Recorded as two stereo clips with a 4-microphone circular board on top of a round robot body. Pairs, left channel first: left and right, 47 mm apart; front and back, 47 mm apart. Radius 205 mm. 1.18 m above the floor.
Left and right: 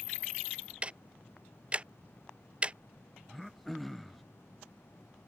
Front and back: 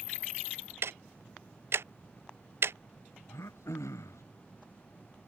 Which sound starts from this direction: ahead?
Throat clearing, at 3.3 s.